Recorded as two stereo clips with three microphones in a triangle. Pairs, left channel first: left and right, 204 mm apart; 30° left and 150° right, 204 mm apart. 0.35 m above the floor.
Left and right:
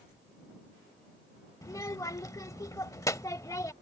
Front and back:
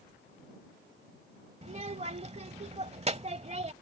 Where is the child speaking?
160° left.